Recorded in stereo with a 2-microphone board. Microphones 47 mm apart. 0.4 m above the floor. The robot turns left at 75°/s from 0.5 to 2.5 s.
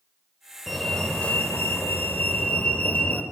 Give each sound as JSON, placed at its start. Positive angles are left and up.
{"t": 0.7, "sound": "a fire alarm", "azimuth_deg": -175, "distance_m": 2.5}